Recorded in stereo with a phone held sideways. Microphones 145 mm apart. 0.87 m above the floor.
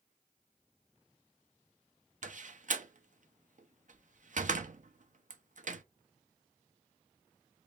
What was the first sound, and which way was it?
A door slam, 60° right (ahead or behind).